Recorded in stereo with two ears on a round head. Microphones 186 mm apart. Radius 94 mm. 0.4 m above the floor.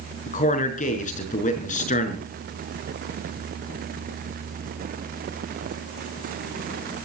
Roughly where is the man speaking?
Left.